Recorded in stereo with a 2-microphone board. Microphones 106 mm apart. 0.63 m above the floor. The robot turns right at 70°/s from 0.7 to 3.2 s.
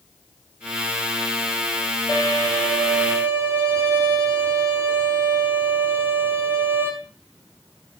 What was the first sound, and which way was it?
A violin, 130° left.